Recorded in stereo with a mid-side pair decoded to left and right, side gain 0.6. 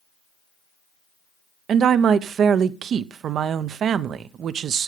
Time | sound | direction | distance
1.7 | a woman speaking | 45° right | 0.7 m